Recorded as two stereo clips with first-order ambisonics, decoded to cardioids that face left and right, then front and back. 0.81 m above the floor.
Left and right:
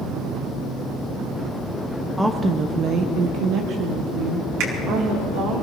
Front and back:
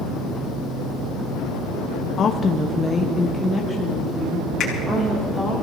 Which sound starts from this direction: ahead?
A woman speaking, at 2.2 s.